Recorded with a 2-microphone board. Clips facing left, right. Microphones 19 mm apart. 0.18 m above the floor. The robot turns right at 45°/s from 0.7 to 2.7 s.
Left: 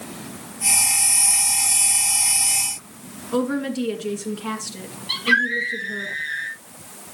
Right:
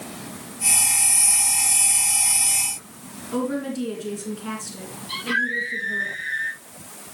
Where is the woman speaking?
25° left (ahead or behind), 2.5 m.